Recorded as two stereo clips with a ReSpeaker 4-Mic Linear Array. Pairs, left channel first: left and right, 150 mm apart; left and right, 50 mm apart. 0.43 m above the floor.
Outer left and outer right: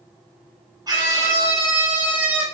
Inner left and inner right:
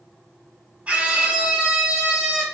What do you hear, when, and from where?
0.9 s a scream: 25° right (ahead or behind), 4.5 m; by 2.4 s 10° right (ahead or behind), 5 m